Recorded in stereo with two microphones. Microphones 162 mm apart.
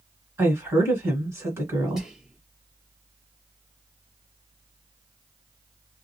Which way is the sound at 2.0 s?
Centre (ahead or behind).